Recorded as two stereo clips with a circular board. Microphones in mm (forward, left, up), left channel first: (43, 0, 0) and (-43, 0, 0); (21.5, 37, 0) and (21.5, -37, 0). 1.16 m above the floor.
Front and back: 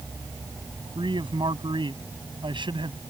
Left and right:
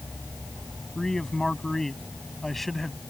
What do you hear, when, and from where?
0.9 s a man speaking: 175° left; by 3.0 s straight behind